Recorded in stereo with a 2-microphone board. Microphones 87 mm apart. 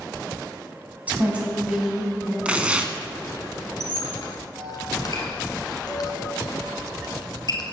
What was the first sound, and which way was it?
A woman speaking, 15° right (ahead or behind).